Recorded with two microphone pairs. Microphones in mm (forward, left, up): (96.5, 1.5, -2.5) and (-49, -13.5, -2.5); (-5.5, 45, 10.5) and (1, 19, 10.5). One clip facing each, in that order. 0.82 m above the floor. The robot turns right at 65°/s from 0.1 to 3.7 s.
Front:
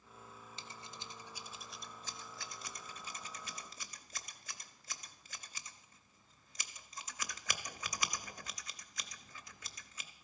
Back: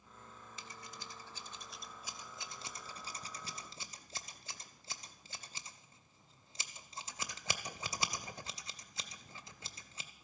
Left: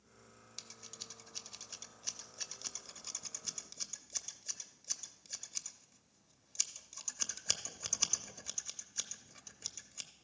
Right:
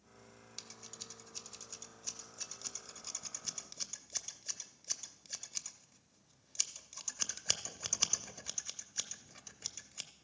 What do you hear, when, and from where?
0.6 s scissors: 15° left, 0.6 m; by 10.1 s 140° right, 0.6 m